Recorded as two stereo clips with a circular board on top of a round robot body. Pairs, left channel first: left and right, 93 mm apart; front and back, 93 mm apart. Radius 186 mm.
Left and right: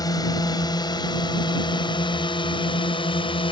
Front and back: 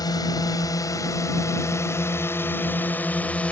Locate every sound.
0.0 s a drone: 45° left; by 3.5 s 75° left